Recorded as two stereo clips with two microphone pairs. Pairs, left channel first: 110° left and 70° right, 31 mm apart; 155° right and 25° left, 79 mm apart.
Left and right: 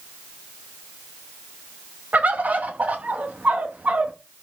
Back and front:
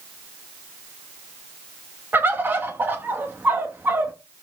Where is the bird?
35° right, 0.8 m.